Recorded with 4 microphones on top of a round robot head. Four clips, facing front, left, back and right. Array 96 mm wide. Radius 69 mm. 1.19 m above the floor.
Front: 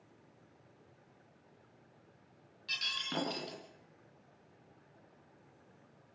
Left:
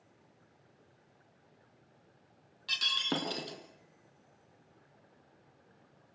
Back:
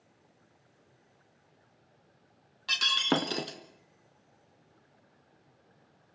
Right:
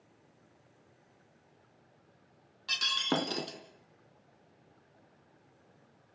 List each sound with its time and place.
2.7 s breaking glass: 165° right, 3 m